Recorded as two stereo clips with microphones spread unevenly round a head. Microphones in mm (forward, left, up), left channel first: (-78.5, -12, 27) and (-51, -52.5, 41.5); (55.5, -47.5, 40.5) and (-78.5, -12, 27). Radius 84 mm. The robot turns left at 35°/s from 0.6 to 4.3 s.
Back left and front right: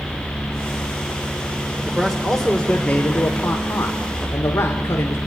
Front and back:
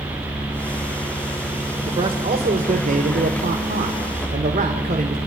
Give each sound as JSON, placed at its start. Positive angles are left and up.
{"t": 1.9, "sound": "a man speaking", "azimuth_deg": -140, "distance_m": 1.8}